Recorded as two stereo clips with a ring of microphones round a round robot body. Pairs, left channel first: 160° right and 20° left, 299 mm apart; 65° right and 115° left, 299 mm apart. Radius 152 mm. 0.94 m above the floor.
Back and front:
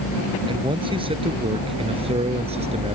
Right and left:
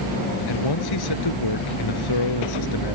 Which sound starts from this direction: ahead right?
A man speaking, at 0.5 s.